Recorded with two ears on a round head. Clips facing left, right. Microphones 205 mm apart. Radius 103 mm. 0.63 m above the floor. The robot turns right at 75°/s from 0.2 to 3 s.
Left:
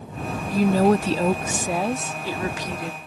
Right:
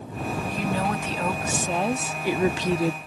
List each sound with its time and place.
0.5 s a woman speaking: 75° left; by 3.0 s 100° right